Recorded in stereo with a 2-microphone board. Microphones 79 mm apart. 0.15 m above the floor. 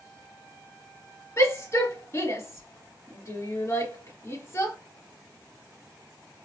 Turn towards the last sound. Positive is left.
turn(degrees=35)  # may be behind; listen again after turning